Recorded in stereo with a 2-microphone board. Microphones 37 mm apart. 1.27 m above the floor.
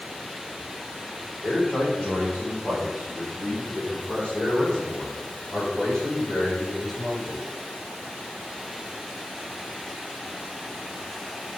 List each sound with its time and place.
1.4 s a man speaking: 40° left (ahead or behind), 4.5 m; by 7.4 s 10° left (ahead or behind), 6 m